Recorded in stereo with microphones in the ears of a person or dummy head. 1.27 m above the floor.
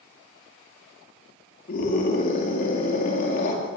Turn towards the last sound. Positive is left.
turn(degrees=50)  # may be behind; listen again after turning